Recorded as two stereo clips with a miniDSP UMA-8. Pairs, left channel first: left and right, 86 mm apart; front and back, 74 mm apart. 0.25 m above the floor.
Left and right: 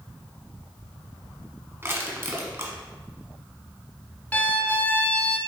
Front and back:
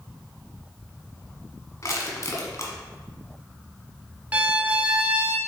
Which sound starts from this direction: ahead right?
Crushing, at 1.8 s.